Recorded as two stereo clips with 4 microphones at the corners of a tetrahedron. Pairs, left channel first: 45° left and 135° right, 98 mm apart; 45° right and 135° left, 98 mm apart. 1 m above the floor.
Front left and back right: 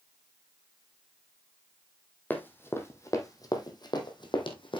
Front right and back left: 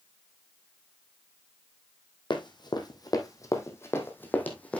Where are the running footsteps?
20° right, 2 m; by 4.8 s 30° left, 2.5 m.